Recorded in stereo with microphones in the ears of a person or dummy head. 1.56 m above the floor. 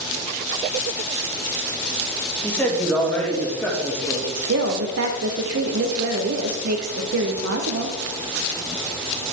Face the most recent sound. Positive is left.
turn(degrees=-65)  # may be behind; listen again after turning